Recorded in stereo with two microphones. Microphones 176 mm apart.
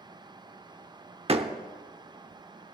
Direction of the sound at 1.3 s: 35° right (ahead or behind).